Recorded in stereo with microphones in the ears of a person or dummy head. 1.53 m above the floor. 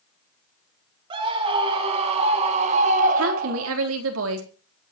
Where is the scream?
30° right (ahead or behind), 2.5 m; by 3.7 s 55° right (ahead or behind), 1.1 m.